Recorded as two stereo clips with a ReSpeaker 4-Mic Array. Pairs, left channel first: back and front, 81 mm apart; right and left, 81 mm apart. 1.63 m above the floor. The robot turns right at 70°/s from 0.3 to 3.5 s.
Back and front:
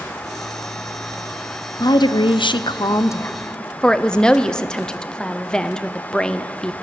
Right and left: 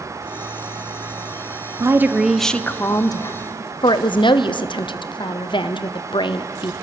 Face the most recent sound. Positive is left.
turn(degrees=-100)